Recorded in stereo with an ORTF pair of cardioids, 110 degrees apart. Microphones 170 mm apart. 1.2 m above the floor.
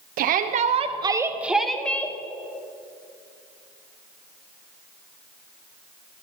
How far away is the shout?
About 1.1 m.